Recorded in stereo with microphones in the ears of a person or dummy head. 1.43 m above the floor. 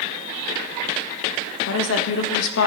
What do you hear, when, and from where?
1.7 s a woman speaking: 75° left (ahead or behind), 1.2 m